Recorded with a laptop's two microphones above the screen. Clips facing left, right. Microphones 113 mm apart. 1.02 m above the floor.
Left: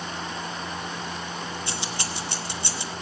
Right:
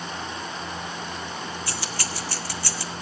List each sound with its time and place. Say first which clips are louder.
1.7 s keys jangling: even; 20° left (ahead or behind), 0.9 m